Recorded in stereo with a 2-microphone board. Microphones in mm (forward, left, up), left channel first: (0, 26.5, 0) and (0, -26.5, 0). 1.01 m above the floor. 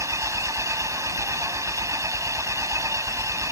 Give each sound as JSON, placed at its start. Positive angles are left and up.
{"t": 0.0, "sound": "an engine running", "side_deg": -75}